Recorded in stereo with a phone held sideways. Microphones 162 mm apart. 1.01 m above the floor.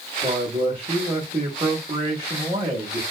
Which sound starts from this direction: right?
A man speaking, at 0.2 s.